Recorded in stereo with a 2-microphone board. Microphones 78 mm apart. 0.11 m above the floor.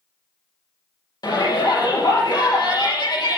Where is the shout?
60° left (ahead or behind), 4.5 m.